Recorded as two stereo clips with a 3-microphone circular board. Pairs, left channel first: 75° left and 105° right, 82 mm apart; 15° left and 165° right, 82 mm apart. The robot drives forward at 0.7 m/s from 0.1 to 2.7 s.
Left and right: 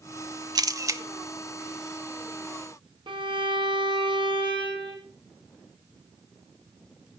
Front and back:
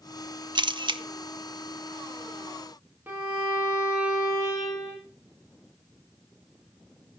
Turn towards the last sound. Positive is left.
turn(degrees=-100)